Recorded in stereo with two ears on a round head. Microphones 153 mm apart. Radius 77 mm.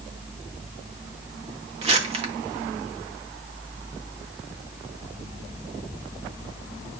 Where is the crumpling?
40° right (ahead or behind), 1.9 m.